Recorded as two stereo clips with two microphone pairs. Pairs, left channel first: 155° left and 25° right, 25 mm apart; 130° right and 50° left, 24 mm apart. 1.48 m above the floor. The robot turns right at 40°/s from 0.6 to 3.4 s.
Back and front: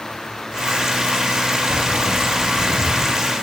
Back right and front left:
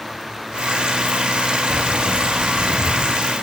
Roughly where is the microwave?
No microwave in this recording.